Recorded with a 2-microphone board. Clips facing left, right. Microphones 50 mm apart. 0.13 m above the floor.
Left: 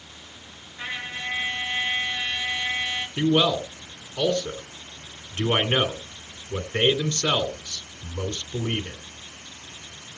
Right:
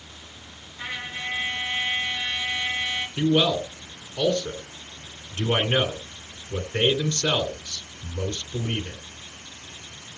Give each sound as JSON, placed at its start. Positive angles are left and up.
{"t": 0.8, "sound": "a trumpet", "side_deg": 25, "distance_m": 4.5}
{"t": 3.2, "sound": "a man speaking", "side_deg": 30, "distance_m": 1.9}